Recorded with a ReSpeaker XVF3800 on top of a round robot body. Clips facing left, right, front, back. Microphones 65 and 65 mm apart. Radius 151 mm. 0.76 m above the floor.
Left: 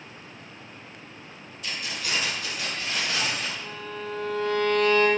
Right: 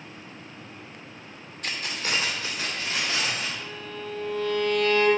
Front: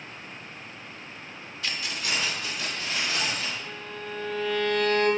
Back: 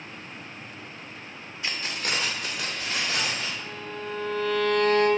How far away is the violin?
About 1.1 m.